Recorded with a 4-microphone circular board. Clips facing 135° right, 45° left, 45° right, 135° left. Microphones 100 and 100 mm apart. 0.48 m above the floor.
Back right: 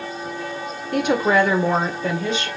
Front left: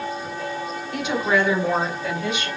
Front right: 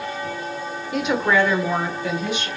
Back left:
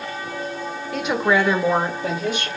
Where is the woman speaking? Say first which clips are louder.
Back right 4 dB, even; 130° right, 1.0 m; by 2.5 s 170° left, 1.5 m.